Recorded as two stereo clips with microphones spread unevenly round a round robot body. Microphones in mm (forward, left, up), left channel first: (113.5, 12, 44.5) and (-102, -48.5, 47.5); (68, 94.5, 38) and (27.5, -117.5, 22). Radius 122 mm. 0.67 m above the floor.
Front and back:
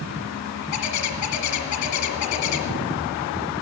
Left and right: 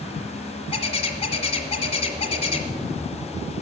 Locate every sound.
0.7 s a bird: 15° left, 1.7 m